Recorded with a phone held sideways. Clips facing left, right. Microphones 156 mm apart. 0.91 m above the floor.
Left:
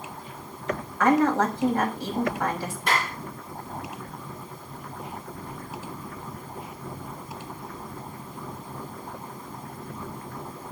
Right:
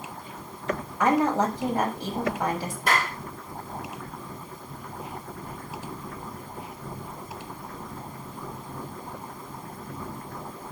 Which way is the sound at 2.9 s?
45° right (ahead or behind).